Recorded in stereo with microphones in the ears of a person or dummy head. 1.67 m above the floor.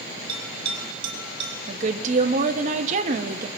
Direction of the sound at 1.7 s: 45° right (ahead or behind).